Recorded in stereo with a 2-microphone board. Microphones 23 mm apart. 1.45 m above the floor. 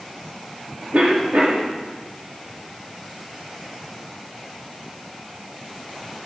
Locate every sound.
0.9 s a cough: 70° right (ahead or behind), 3 m